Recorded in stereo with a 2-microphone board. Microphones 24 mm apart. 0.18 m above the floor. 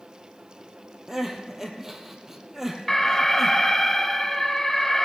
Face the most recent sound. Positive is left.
turn(degrees=15)  # may be behind; listen again after turning